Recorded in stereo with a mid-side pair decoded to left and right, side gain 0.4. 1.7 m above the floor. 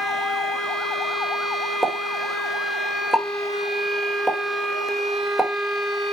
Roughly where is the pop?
Ahead.